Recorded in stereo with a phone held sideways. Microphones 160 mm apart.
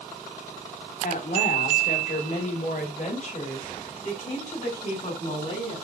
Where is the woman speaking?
60° left (ahead or behind), 2 m; by 5.8 s 45° left (ahead or behind), 6.5 m.